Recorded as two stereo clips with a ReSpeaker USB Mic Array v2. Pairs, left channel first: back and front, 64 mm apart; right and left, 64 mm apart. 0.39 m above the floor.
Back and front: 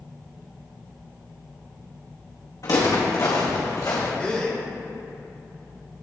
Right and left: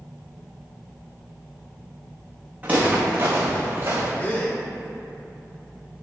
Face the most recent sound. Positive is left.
turn(degrees=-120)